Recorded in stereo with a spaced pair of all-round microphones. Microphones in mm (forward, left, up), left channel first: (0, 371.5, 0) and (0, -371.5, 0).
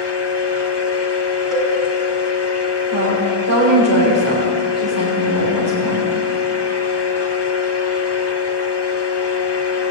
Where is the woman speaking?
20° left (ahead or behind), 4.5 m.